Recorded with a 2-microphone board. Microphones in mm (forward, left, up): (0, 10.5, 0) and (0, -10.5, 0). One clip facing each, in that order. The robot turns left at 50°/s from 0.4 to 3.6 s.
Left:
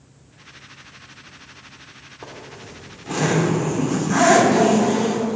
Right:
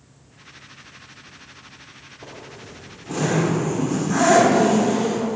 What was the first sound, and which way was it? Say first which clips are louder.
A zipper: left 2 dB; 80° left.